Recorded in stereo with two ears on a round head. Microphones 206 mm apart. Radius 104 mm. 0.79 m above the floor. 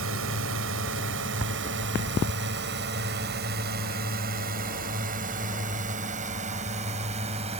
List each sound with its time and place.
0.0 s a drone: 60° right (ahead or behind); by 7.6 s 25° right (ahead or behind)